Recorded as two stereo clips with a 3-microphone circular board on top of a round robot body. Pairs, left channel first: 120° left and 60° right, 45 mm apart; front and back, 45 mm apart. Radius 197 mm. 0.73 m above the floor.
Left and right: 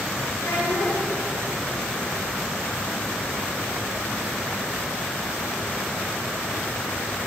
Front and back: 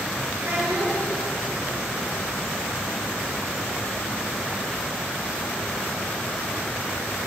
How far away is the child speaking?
About 2.5 m.